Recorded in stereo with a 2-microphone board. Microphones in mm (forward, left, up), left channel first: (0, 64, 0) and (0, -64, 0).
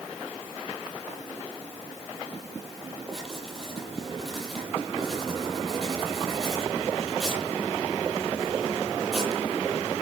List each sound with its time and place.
3.1 s writing: 5° left (ahead or behind), 8 m